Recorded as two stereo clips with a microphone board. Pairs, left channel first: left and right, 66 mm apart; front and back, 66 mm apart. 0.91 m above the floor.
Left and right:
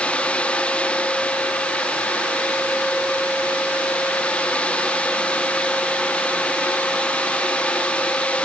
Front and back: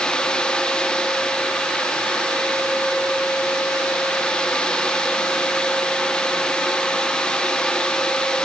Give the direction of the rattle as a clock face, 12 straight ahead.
No rattle in this recording.